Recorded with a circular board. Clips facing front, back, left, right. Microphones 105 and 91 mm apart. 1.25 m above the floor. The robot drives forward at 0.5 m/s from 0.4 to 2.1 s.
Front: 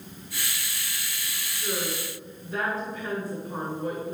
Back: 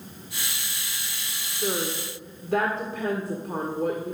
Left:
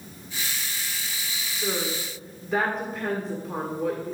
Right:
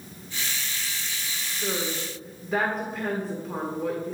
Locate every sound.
1.5 s a woman speaking: straight behind, 1.3 m